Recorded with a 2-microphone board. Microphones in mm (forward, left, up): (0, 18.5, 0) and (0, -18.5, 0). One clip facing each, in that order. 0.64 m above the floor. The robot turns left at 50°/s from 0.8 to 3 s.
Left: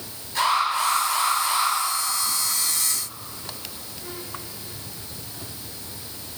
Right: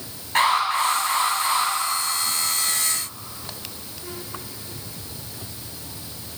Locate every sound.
0.3 s an alarm: 125° right, 6.5 m; by 1.7 s 170° right, 6.5 m